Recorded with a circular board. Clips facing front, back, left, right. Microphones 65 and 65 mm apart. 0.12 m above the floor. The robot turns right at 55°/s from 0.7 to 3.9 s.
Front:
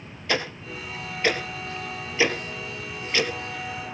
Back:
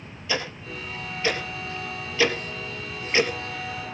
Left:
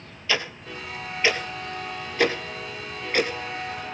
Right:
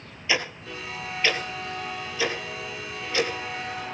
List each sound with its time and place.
0.3 s ticking: 15° right, 2.5 m; by 3.9 s 160° left, 2.5 m